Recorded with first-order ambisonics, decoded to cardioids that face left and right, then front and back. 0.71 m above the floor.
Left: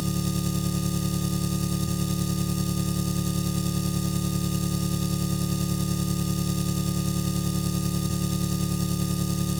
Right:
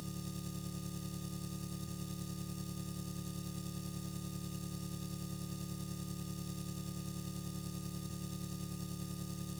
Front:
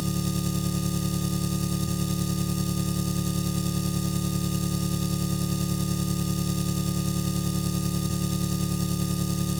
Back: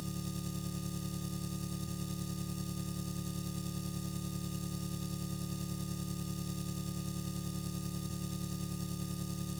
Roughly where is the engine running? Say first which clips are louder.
Left 17 dB, front 13 dB; ahead left.